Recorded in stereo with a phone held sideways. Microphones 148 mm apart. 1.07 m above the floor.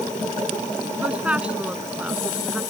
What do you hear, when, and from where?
1.0 s a woman speaking: 10° right (ahead or behind)